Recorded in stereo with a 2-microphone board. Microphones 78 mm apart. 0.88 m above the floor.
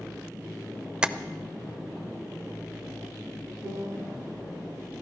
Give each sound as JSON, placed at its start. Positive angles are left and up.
{"t": 1.0, "sound": "tapping", "side_deg": -10, "distance_m": 0.6}
{"t": 3.6, "sound": "a piano", "side_deg": -75, "distance_m": 3.0}